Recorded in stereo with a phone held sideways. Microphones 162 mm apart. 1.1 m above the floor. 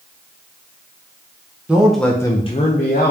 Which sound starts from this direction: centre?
A man speaking, at 1.7 s.